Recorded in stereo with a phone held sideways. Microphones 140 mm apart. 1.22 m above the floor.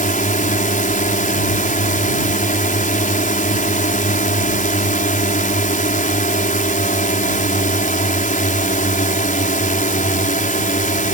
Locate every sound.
0.0 s a drone: 65° left (ahead or behind)